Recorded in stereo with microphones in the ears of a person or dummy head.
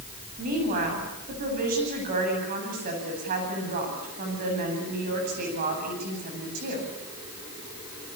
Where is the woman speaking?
50° right (ahead or behind), 9 m.